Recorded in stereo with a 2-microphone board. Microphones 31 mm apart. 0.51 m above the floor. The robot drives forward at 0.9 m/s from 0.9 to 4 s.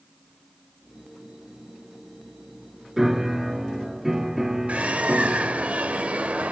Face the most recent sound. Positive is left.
turn(degrees=-50)  # may be behind; listen again after turning